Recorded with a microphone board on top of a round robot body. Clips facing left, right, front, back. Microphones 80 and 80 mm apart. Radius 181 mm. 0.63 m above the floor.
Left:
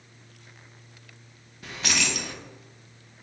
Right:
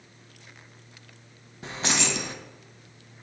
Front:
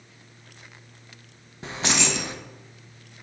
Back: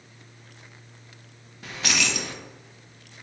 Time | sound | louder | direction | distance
1.6 | keys jangling | right 1 dB, front 2 dB | 45° right | 0.5 m